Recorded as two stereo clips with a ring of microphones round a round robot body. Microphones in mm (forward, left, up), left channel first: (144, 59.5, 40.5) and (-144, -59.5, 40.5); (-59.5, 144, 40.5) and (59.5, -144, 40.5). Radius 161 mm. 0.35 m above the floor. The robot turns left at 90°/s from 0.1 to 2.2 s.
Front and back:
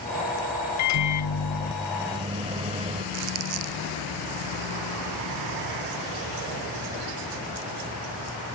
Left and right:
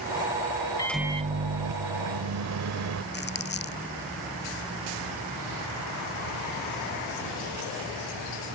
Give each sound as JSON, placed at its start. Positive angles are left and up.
{"t": 0.8, "sound": "a microwave", "azimuth_deg": 40}
{"t": 3.1, "sound": "crumpling", "azimuth_deg": 170}